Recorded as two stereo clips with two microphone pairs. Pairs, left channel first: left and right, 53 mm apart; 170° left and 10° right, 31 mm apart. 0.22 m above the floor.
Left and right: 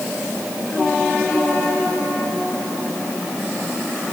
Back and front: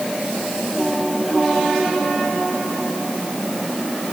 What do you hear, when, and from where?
Only background noise.